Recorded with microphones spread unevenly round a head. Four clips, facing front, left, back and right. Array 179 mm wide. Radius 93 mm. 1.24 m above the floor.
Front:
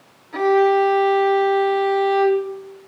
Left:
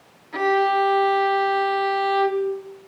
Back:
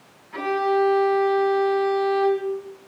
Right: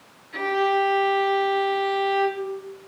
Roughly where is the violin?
Ahead left.